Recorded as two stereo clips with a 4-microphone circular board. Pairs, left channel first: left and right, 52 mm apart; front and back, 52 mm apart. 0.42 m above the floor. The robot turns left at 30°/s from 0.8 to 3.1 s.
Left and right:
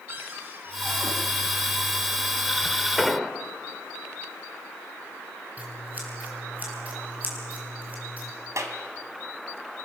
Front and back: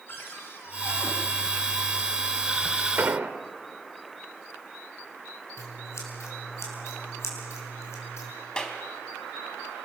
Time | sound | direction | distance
0.1 | a cupboard door | 45° right | 4.5 m
3.0 | an explosion | 175° right | 1.4 m
5.6 | scissors | 30° right | 5.5 m
8.6 | a clap | 75° right | 2.5 m